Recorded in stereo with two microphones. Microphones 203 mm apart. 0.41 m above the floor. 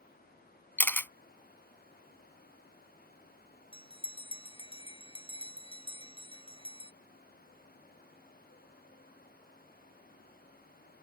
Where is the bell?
25° left (ahead or behind).